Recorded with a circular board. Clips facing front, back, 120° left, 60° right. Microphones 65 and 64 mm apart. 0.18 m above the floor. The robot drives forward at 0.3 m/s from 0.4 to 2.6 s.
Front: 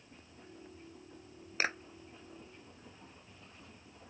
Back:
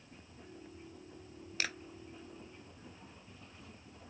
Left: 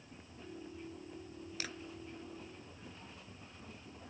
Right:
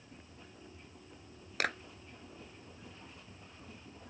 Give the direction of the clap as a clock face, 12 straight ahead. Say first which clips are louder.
Front 5 dB, right 12 dB; 2 o'clock.